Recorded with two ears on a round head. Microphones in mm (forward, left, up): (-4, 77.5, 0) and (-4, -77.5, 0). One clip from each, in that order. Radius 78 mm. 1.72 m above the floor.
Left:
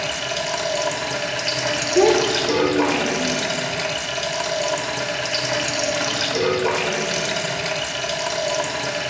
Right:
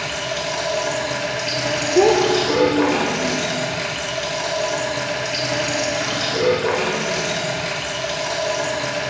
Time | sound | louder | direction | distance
0.0 | running water | even | 25° left (ahead or behind) | 0.8 m
1.9 | a child speaking | right 2 dB | 10° left (ahead or behind) | 0.7 m